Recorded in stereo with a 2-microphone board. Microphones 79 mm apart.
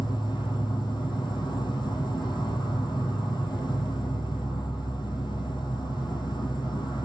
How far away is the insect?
About 1.5 m.